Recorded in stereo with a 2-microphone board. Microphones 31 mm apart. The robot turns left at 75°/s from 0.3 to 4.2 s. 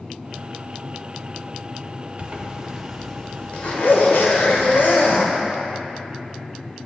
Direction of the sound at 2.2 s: 120° right.